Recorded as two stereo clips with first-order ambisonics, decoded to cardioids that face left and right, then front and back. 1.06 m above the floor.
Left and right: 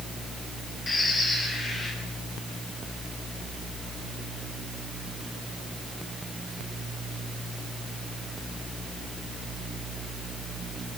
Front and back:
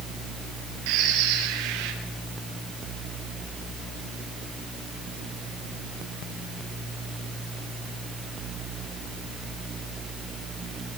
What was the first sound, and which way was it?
A bird, 165° left.